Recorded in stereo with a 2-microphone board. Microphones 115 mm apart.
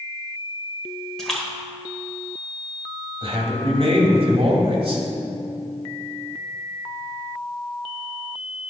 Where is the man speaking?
60° right (ahead or behind), 2 m.